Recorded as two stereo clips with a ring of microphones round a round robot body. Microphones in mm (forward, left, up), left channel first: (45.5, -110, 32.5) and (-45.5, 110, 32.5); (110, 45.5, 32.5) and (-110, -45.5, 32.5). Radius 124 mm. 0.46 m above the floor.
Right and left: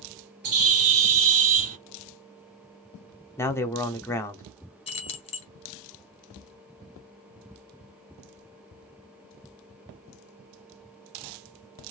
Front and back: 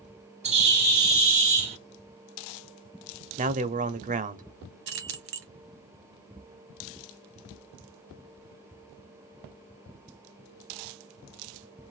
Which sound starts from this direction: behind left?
A bird, at 0.4 s.